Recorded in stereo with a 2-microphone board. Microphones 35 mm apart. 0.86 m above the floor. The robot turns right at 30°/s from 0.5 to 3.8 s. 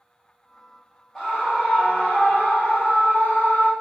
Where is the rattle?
No rattle in this recording.